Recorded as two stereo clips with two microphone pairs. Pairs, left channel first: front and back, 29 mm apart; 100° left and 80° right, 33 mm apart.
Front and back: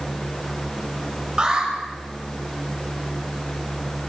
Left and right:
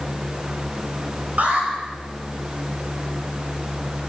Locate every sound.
1.4 s an alarm: 120° right, 8 m